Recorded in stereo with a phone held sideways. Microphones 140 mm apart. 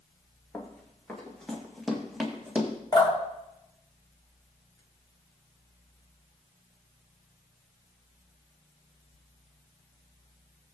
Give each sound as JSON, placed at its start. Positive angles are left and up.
{"t": 0.5, "sound": "running footsteps", "side_deg": 10, "distance_m": 3.0}
{"t": 2.9, "sound": "dripping", "side_deg": 30, "distance_m": 3.0}